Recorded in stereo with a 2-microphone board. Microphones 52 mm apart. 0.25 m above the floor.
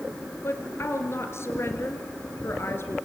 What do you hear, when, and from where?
0.4 s a woman speaking: 50° left (ahead or behind), 3.5 m